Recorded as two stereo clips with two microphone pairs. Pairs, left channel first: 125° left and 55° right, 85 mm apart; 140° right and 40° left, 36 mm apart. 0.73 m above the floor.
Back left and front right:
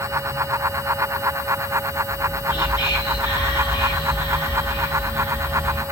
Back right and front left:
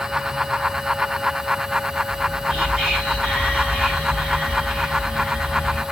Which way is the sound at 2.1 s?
90° left.